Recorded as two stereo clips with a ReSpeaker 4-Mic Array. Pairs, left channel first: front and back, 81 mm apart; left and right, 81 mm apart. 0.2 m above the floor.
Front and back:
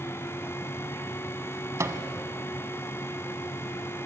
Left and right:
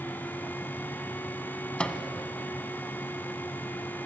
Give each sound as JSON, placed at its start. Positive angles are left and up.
{"t": 1.8, "sound": "a microwave", "azimuth_deg": 160, "distance_m": 1.1}